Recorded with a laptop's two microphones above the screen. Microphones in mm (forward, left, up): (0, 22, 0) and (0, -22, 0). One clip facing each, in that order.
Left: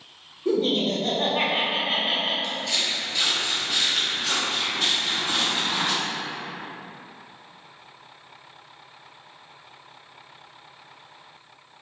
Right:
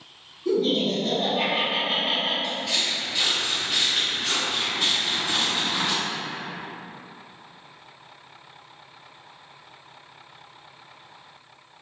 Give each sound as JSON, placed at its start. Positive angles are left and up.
{"t": 0.5, "sound": "laughter", "side_deg": 45, "distance_m": 0.7}
{"t": 2.4, "sound": "footsteps", "side_deg": -15, "distance_m": 1.0}